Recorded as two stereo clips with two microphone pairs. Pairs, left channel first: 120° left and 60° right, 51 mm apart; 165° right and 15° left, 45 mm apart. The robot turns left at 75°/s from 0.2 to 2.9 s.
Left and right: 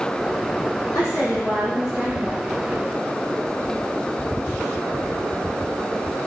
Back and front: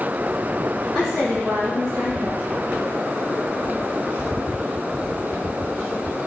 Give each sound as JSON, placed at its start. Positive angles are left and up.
{"t": 0.9, "sound": "a woman speaking", "azimuth_deg": 125, "distance_m": 1.7}